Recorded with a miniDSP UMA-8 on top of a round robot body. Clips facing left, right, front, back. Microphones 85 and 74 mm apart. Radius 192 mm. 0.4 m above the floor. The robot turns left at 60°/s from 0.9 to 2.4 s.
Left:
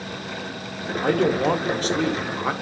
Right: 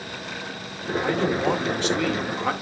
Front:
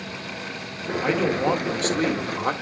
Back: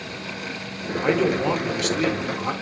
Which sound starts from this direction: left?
A man speaking, at 1.0 s.